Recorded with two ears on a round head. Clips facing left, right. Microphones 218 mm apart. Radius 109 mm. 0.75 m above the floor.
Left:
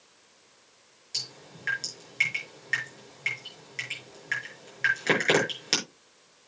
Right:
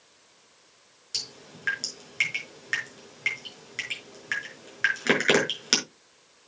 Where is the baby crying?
I don't hear a baby crying.